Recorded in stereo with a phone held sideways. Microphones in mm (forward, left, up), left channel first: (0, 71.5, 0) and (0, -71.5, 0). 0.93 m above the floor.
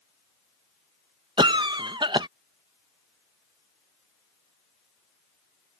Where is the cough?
35° right (ahead or behind).